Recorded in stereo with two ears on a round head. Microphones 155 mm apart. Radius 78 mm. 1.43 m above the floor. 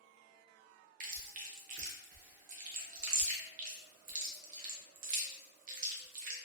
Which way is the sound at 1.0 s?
50° right (ahead or behind).